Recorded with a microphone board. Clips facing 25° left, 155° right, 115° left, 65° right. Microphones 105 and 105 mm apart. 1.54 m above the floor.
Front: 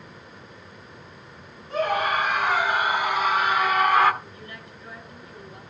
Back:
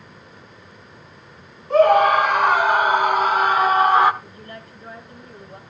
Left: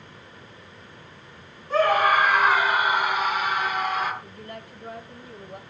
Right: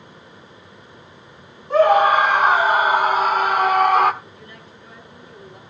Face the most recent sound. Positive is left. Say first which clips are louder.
# back 3 dB, left 3 dB
turn(degrees=150)